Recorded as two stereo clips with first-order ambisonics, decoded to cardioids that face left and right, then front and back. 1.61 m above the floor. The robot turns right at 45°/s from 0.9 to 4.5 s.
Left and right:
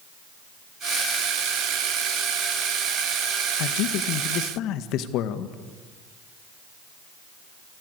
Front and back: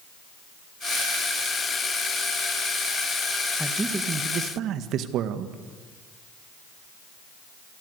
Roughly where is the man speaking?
Left.